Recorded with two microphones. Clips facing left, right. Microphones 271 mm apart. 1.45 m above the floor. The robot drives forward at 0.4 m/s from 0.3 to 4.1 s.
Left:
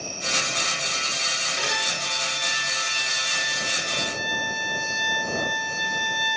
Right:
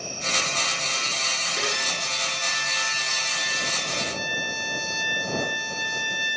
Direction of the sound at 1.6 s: 60° right (ahead or behind).